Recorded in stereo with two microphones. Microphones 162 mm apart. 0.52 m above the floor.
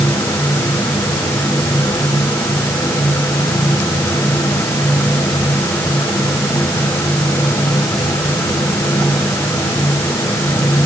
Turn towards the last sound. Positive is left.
No sound to turn to.